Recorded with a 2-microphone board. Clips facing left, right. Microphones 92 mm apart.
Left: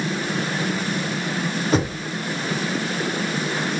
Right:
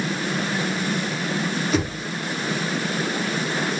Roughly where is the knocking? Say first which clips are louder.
Left 4 dB; left.